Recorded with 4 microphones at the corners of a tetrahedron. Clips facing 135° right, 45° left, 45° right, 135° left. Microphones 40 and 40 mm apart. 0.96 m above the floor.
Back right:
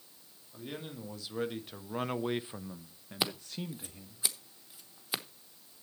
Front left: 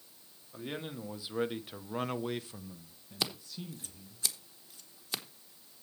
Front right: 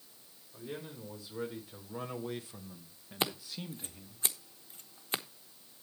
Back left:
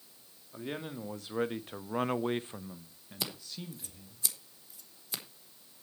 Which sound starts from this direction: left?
A man speaking, at 0.5 s.